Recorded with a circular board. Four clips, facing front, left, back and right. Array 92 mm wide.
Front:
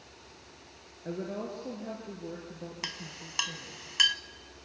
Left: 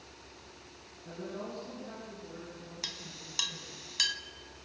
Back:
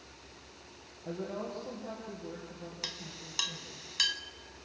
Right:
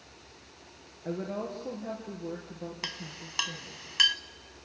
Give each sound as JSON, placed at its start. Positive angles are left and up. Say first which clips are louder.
{"t": 1.1, "sound": "a woman speaking", "louder": "right 6 dB, front 2 dB", "azimuth_deg": -55, "distance_m": 3.0}
{"t": 2.8, "sound": "a clink", "louder": "right 5 dB, front 3 dB", "azimuth_deg": -50, "distance_m": 0.7}